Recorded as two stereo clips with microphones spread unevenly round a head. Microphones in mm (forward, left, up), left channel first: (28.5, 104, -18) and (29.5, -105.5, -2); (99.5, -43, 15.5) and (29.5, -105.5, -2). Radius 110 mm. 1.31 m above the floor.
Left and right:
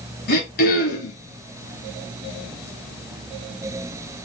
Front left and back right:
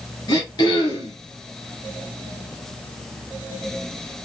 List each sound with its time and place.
0.3 s throat clearing: 60° left, 1.8 m